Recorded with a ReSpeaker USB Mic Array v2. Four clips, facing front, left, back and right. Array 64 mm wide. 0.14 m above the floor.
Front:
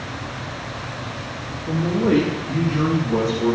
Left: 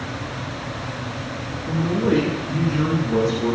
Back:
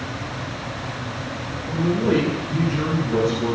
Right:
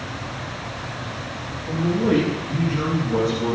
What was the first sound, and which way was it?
A man speaking, 25° left.